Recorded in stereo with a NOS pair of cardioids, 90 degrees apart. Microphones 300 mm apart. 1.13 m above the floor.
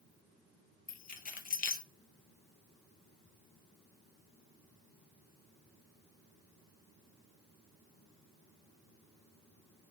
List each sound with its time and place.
0.9 s keys jangling: 25° left, 0.7 m